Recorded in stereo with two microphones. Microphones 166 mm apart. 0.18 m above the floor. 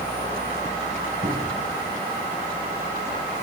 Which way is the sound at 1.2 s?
45° right (ahead or behind).